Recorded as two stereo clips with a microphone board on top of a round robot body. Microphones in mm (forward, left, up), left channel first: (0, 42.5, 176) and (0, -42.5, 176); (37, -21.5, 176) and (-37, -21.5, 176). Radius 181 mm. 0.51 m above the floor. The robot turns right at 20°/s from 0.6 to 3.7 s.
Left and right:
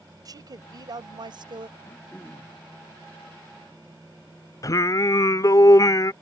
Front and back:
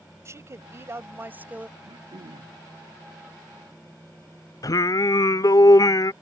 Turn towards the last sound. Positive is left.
turn(degrees=40)